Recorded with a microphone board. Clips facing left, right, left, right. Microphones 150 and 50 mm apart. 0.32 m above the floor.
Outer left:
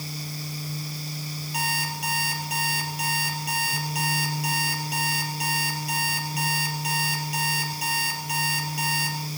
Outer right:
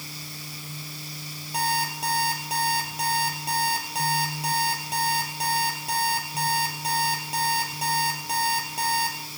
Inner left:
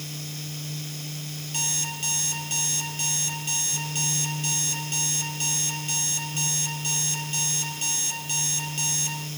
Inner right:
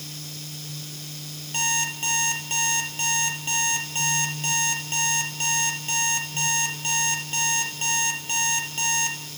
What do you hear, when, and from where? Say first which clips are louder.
1.5 s an alarm clock: outer right 5 dB, inner right 7 dB; 30° right (ahead or behind), 4 m